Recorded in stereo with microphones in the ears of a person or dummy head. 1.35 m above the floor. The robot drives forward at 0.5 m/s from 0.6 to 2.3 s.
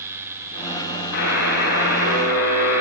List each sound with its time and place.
1.1 s a buzzer: 75° left (ahead or behind), 9 m; by 2.8 s 70° left (ahead or behind), 9.5 m